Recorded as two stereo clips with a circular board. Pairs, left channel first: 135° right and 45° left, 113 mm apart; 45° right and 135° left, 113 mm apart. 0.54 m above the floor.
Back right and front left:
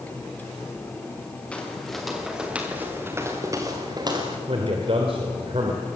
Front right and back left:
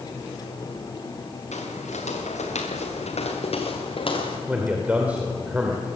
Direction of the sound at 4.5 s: 60° left.